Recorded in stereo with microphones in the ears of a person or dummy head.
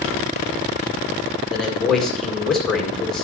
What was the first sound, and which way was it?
A man speaking, centre (ahead or behind).